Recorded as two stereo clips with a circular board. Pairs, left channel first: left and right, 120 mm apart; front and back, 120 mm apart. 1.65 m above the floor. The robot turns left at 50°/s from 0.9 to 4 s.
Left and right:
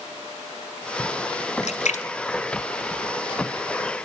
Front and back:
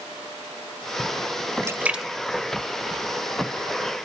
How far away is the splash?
About 0.8 m.